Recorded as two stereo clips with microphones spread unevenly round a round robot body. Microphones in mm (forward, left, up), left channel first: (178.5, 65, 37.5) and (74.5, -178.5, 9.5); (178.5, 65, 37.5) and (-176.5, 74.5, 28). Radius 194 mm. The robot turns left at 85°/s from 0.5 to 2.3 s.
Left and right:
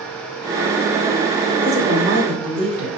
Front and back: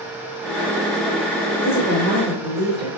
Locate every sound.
1.6 s a woman speaking: 45° right, 2 m; by 3.0 s 105° right, 2 m